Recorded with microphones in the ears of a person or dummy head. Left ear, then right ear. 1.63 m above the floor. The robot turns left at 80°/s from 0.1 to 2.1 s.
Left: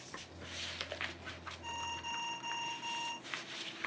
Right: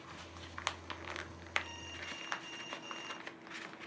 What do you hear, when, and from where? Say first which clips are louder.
1.6 s an alarm: left 5 dB; 150° left; by 3.2 s 110° left